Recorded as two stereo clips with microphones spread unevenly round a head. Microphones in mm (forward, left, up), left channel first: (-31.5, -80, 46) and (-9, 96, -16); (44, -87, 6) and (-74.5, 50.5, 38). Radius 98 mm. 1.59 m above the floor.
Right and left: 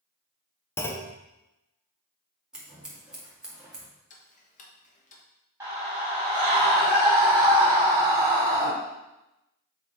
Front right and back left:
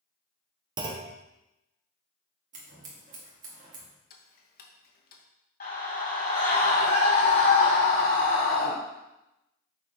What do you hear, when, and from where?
0.8 s a clunk: 165° right, 0.8 m
2.5 s scissors: 175° left, 2 m
4.1 s ticking: 85° right, 1.1 m
5.6 s a scream: straight ahead, 4.5 m